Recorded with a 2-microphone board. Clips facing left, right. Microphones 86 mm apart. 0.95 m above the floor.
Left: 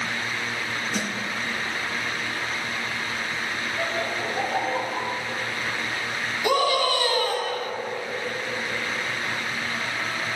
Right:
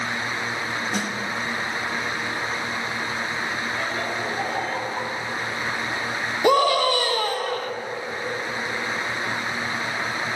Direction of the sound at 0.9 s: 60° right (ahead or behind).